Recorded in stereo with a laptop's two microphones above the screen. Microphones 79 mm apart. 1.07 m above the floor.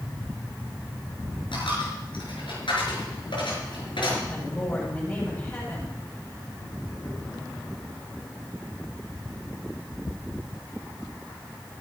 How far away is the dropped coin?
About 6 m.